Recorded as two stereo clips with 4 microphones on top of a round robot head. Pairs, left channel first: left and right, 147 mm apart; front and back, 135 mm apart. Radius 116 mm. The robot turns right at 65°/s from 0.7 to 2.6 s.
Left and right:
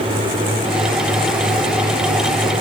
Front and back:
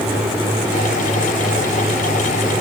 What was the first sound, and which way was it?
Only background noise.